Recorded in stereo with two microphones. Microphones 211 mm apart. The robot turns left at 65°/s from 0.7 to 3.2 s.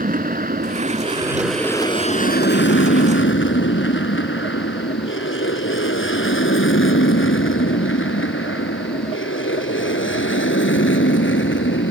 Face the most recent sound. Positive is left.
turn(degrees=65)  # may be behind; listen again after turning